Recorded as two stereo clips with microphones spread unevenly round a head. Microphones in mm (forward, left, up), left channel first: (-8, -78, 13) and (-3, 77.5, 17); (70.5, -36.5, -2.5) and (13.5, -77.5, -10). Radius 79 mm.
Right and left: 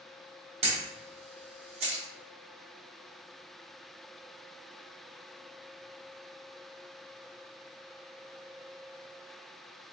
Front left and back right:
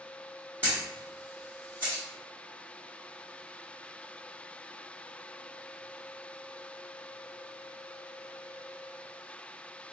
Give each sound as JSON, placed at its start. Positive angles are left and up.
{"t": 0.6, "sound": "a camera shutter", "azimuth_deg": 140, "distance_m": 0.8}